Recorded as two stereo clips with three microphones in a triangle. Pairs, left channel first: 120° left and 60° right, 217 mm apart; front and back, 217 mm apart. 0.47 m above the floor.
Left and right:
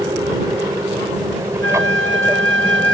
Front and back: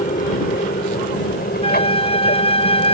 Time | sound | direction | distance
0.0 | an aircraft | 5° left | ?
1.6 | a flute | 60° right | ?